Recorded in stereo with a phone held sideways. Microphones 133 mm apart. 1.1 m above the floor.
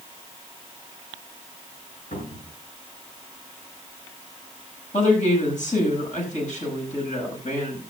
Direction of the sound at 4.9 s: 70° left (ahead or behind).